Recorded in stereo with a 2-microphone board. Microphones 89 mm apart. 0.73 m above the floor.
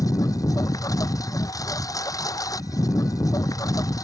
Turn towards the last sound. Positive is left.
turn(degrees=40)  # may be behind; listen again after turning